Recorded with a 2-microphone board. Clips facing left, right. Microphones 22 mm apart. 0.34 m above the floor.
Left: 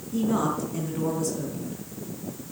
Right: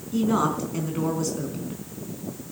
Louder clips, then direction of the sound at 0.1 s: Right 2 dB; 30° right (ahead or behind).